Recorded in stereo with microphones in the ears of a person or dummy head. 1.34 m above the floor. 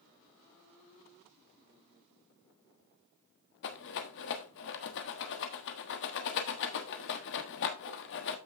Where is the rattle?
55° left (ahead or behind), 1.1 m.